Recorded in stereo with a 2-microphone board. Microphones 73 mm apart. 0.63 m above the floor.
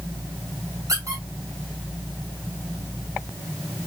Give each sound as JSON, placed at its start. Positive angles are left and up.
{"t": 0.9, "sound": "a squeak", "side_deg": -50, "distance_m": 2.5}